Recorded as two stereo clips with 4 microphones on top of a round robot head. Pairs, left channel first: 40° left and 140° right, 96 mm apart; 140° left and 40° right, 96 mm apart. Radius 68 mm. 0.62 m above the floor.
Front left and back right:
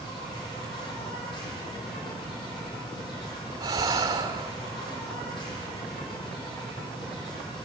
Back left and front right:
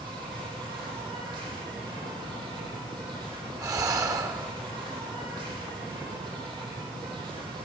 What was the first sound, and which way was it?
An insect, straight ahead.